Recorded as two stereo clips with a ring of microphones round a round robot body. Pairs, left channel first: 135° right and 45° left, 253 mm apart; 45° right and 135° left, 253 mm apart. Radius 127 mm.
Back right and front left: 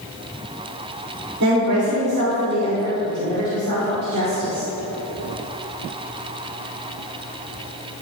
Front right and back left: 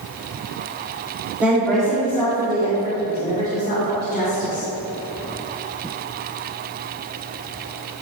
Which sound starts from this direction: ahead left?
A woman speaking, at 1.4 s.